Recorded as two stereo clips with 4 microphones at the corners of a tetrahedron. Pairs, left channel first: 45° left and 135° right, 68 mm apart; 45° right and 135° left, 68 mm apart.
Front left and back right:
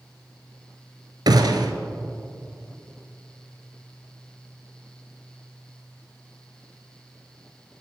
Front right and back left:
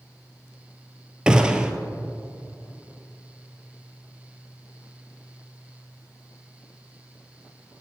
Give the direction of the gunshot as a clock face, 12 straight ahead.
5 o'clock.